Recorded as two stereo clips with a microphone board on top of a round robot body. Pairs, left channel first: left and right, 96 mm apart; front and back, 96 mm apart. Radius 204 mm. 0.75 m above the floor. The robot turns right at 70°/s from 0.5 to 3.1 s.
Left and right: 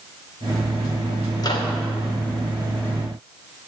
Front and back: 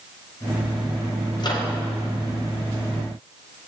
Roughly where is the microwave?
Ahead left.